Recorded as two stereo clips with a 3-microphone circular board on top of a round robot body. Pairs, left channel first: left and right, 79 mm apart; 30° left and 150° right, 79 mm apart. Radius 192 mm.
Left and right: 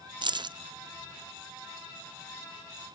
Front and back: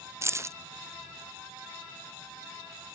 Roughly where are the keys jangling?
Right.